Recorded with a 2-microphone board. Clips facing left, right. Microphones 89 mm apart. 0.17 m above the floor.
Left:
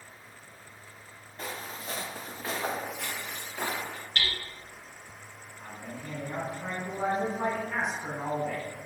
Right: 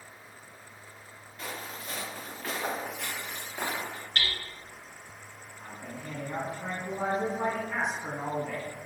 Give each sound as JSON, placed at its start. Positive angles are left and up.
{"t": 1.4, "sound": "footsteps", "side_deg": 35, "distance_m": 1.5}
{"t": 4.2, "sound": "hammering", "side_deg": -40, "distance_m": 2.0}
{"t": 5.6, "sound": "a man speaking", "side_deg": 0, "distance_m": 1.3}